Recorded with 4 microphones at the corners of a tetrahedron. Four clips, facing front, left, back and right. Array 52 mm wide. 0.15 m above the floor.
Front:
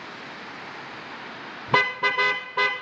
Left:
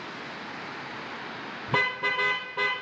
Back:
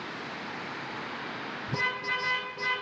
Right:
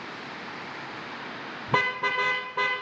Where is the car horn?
10° right, 2 m.